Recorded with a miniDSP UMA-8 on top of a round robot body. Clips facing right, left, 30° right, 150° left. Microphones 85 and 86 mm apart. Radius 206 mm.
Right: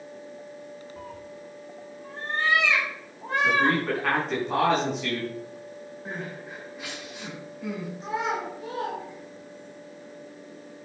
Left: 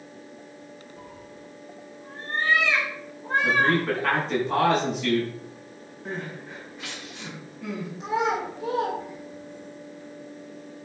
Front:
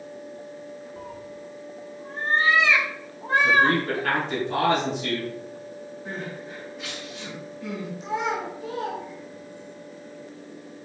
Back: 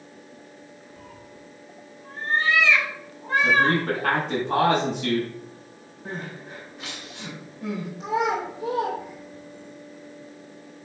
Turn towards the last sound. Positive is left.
turn(degrees=160)